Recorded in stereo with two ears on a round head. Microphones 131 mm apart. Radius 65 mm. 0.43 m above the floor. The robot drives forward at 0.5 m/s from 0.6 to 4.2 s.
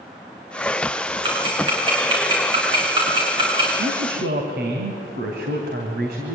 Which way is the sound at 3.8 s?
70° right (ahead or behind).